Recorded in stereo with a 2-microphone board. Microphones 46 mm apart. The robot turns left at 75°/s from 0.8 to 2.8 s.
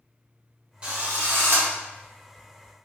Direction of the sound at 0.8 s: 25° right.